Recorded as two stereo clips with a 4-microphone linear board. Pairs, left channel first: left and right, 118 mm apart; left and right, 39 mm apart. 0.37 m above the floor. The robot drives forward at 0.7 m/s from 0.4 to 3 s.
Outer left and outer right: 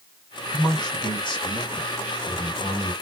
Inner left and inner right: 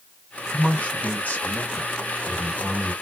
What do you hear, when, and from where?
0.5 s a man speaking: 40° left (ahead or behind), 2.5 m; by 2.9 s 45° left (ahead or behind), 2 m